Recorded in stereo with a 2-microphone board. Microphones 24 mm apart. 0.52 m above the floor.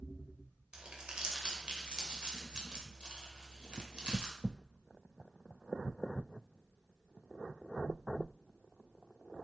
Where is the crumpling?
45° right (ahead or behind), 2.0 m.